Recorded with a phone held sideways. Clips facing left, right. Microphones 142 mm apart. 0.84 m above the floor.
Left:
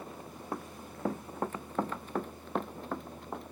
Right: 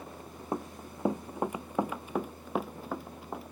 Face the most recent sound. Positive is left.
turn(degrees=-5)  # may be behind; listen again after turning